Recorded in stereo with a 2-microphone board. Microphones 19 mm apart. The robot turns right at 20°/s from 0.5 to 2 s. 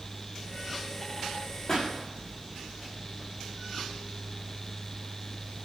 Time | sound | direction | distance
1.7 | a pop | 45° left (ahead or behind) | 5.5 m